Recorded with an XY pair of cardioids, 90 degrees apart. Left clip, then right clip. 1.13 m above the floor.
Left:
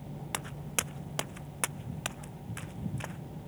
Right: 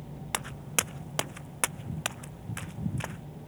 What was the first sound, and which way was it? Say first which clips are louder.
Footsteps: right 4 dB; 35° right.